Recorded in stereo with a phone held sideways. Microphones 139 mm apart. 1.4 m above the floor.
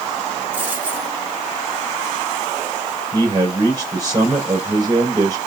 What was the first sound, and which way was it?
A dropped coin, 10° right (ahead or behind).